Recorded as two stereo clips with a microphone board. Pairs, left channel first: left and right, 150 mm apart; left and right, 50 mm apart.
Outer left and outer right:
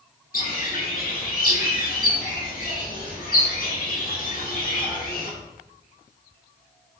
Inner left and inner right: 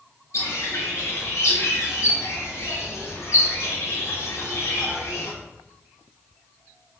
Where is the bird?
70° left (ahead or behind), 1.2 m.